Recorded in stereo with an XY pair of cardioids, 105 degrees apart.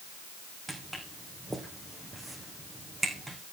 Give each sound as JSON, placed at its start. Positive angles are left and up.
{"t": 0.7, "sound": "footsteps", "azimuth_deg": -20, "distance_m": 3.5}